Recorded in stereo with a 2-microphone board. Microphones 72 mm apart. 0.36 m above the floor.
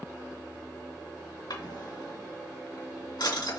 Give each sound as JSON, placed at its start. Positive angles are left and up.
{"t": 1.5, "sound": "a drawer", "side_deg": 75, "distance_m": 2.5}